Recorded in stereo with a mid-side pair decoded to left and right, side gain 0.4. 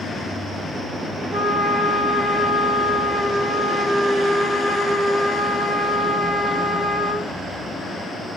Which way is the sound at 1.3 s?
15° right.